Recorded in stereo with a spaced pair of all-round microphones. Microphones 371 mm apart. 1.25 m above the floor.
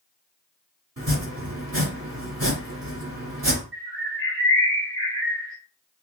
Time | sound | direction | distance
1.0 | chopping | 40° right (ahead or behind) | 1.8 m
3.7 | a bird | 30° right (ahead or behind) | 1.3 m